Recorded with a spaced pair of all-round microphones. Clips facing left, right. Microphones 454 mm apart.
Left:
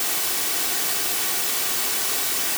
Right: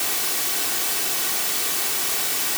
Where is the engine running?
No engine running in this recording.